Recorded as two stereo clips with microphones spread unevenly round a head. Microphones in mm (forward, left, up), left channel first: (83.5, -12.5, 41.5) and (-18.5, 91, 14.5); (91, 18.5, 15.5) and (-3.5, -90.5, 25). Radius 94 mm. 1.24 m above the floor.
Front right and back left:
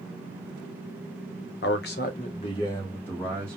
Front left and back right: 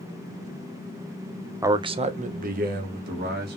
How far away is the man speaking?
About 0.5 m.